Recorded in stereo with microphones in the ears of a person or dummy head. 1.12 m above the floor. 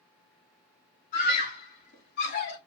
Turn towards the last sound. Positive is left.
turn(degrees=55)  # may be behind; listen again after turning